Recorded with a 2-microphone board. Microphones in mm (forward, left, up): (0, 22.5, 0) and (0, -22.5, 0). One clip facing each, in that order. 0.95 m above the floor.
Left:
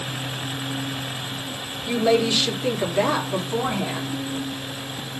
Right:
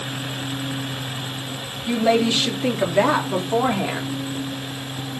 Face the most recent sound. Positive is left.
turn(degrees=-50)  # may be behind; listen again after turning